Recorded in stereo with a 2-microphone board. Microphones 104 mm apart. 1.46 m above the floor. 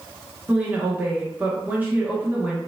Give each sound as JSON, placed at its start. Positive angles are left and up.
{"t": 0.5, "sound": "a woman speaking", "side_deg": -20, "distance_m": 1.1}